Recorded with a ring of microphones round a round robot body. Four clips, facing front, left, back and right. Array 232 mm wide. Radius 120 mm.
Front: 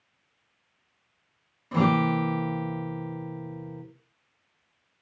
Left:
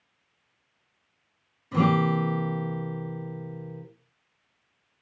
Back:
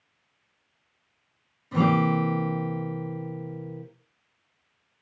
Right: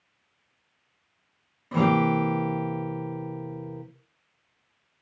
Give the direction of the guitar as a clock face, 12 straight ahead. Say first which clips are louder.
Right 1 dB, back 1 dB; 2 o'clock.